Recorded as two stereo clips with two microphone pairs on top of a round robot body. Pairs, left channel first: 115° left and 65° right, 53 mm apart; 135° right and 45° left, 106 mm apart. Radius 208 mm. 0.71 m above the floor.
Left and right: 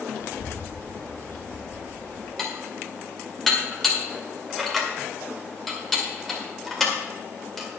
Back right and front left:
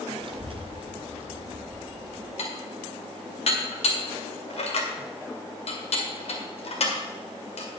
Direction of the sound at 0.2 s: 85° left.